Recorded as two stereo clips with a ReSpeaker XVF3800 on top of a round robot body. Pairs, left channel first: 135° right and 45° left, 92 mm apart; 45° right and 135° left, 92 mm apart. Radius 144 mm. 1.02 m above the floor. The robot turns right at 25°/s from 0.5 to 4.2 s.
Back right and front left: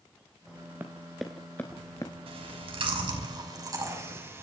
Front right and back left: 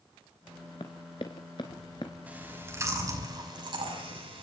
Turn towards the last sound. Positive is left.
turn(degrees=110)